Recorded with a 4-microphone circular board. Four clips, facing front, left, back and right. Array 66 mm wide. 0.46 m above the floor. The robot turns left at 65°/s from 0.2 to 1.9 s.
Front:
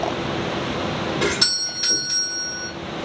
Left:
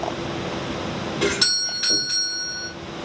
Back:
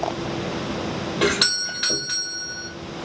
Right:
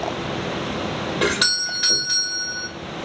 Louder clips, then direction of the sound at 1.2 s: Right 2 dB, back 2 dB; 145° right.